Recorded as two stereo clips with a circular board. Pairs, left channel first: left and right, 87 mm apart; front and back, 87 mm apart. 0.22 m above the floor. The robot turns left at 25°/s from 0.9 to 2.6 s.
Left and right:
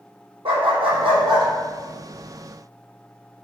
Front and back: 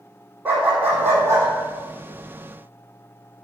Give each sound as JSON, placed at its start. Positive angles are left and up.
{"t": 0.5, "sound": "a dog barking", "azimuth_deg": -105, "distance_m": 3.0}